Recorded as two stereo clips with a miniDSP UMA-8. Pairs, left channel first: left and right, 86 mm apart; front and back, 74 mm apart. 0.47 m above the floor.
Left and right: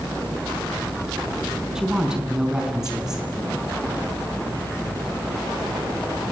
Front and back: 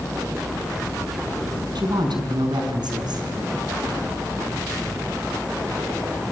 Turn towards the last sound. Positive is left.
turn(degrees=-175)